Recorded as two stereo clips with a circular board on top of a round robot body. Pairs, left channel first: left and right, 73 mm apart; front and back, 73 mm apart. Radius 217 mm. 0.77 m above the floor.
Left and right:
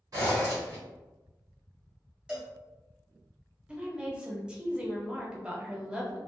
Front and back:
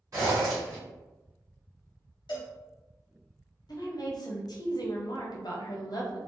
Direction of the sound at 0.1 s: 135° right.